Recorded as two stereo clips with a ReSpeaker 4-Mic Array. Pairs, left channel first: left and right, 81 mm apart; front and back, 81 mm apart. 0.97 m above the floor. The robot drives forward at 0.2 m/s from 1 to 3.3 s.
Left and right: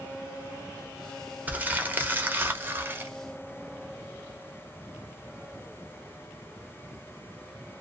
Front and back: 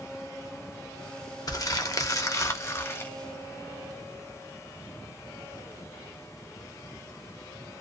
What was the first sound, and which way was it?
Crumpling, 25° right.